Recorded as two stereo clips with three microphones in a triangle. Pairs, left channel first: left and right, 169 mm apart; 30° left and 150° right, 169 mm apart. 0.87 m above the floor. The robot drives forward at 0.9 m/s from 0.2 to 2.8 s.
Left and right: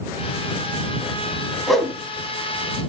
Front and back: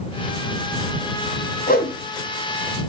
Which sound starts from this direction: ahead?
A whoosh, at 1.7 s.